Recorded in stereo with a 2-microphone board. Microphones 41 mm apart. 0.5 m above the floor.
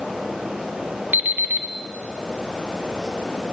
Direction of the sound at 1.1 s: 50° right (ahead or behind).